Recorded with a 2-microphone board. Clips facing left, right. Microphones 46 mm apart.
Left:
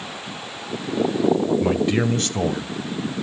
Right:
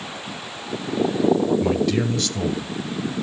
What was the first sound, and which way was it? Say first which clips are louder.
A man speaking: left 1 dB; 10° left (ahead or behind).